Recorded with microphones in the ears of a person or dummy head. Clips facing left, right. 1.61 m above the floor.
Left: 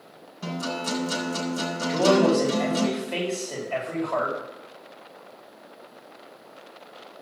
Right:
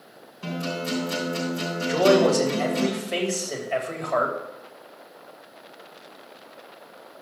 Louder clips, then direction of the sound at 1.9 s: Right 1 dB; 20° right (ahead or behind).